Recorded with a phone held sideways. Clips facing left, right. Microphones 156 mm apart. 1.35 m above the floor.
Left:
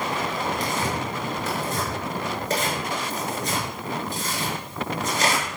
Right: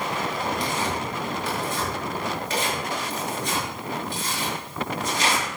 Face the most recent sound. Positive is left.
turn(degrees=45)  # may be behind; listen again after turning